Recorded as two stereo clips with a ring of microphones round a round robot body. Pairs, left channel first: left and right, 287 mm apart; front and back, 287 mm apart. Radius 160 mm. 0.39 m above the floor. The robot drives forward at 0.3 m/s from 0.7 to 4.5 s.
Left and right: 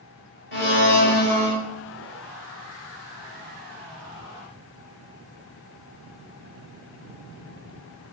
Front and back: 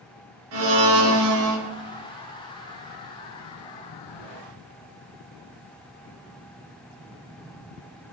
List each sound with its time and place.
0.5 s a blender: 140° left, 1.6 m; by 1.6 s 145° left, 1.9 m